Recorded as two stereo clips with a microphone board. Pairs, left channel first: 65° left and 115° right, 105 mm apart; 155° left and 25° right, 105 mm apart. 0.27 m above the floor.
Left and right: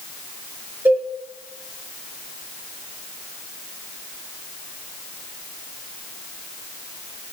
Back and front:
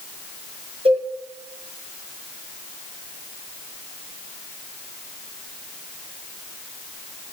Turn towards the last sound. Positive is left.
turn(degrees=-45)